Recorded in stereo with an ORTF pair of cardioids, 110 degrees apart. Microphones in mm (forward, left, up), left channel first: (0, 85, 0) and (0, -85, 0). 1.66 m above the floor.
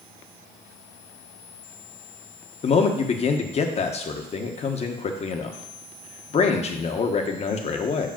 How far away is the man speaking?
About 1.4 m.